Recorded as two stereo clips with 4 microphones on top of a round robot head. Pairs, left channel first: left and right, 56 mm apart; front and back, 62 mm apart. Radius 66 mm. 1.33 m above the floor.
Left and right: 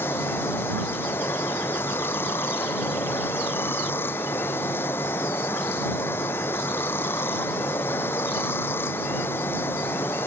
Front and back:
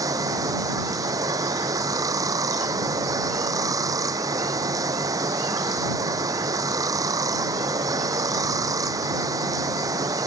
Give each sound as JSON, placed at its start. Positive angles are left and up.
{"t": 0.0, "sound": "running water", "azimuth_deg": 150}